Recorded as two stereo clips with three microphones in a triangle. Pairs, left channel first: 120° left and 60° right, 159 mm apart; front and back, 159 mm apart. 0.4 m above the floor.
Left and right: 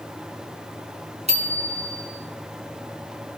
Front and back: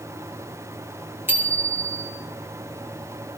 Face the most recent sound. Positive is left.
turn(degrees=-105)